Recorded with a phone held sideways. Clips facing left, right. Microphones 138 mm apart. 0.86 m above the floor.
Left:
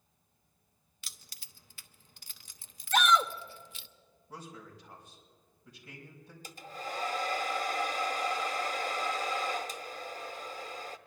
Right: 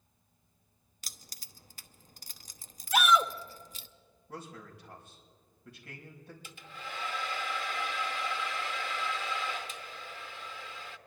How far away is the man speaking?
About 5 m.